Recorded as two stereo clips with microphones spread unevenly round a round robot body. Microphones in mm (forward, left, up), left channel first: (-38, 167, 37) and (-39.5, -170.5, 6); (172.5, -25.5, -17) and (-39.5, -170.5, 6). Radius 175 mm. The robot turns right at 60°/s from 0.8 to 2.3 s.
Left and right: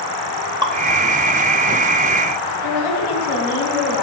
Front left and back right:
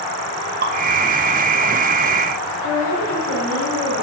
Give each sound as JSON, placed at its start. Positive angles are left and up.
{"t": 0.6, "sound": "dripping", "azimuth_deg": -140, "distance_m": 1.3}
{"t": 2.6, "sound": "a woman speaking", "azimuth_deg": 95, "distance_m": 2.5}